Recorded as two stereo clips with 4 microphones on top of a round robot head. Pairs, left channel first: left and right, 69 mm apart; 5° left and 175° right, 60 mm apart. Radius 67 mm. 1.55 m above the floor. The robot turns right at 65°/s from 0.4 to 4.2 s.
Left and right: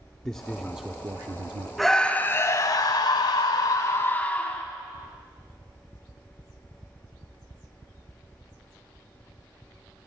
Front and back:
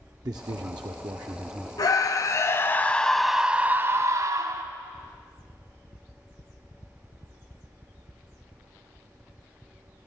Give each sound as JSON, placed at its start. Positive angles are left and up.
{"t": 0.2, "sound": "a man speaking", "azimuth_deg": 170, "distance_m": 0.5}
{"t": 1.8, "sound": "a scream", "azimuth_deg": 0, "distance_m": 1.4}